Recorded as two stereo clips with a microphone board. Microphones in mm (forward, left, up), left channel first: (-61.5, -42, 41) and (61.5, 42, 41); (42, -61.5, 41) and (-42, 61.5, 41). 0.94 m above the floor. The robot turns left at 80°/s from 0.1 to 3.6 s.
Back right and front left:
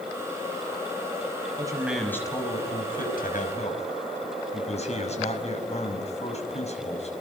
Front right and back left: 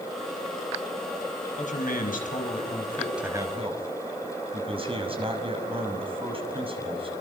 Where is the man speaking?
25° right, 5.5 m; by 7.1 s 175° left, 5.5 m.